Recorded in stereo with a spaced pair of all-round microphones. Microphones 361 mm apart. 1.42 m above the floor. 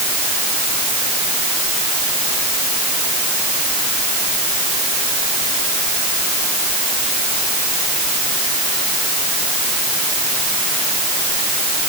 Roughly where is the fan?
No fan in this recording.